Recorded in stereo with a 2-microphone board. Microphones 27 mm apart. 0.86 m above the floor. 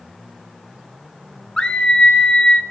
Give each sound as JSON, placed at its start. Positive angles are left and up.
{"t": 1.6, "sound": "a scream", "side_deg": 30, "distance_m": 1.3}